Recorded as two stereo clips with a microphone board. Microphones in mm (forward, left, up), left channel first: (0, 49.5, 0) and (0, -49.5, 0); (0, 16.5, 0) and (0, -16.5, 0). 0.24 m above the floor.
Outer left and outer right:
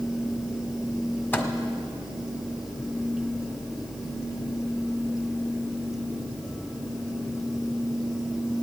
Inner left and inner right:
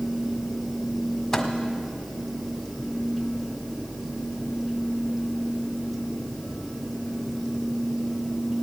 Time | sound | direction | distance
1.3 | a microwave | 20° left (ahead or behind) | 1.7 m